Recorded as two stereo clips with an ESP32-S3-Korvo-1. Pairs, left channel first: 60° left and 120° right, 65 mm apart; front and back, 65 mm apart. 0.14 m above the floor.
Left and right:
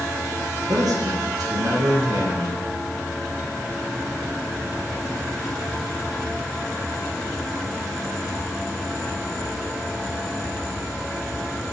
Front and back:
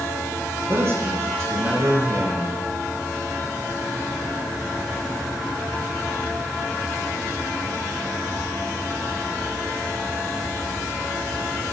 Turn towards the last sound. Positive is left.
turn(degrees=-130)